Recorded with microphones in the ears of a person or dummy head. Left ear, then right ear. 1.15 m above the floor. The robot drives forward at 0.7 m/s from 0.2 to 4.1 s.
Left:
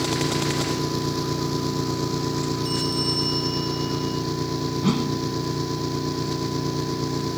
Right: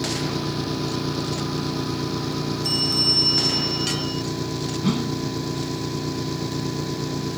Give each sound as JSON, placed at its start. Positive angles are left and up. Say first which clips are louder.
{"t": 0.0, "sound": "an engine running", "louder": "left 2 dB", "side_deg": 20}
{"t": 2.6, "sound": "a bell", "louder": "right 7 dB", "side_deg": -10}
{"t": 4.8, "sound": "a whoosh", "louder": "left 1 dB", "side_deg": 5}